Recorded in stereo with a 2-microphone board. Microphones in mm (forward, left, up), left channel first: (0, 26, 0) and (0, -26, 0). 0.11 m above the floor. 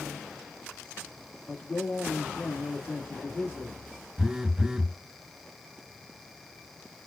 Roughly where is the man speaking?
Left.